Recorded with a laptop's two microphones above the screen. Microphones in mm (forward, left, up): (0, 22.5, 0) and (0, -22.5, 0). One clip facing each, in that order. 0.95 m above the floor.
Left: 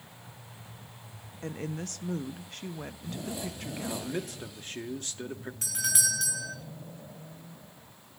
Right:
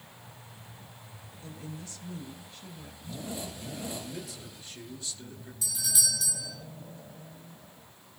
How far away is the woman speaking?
About 0.9 m.